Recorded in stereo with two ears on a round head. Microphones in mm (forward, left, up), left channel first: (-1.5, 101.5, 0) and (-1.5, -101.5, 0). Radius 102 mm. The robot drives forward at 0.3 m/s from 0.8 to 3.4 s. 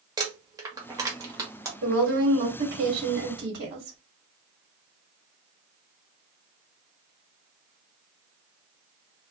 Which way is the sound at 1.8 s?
60° right (ahead or behind).